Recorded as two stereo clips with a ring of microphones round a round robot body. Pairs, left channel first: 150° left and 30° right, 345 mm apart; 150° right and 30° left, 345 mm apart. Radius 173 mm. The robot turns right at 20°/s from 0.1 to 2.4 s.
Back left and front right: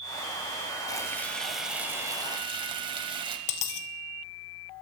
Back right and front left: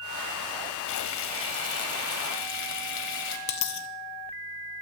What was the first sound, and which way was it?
Frying, 135° right.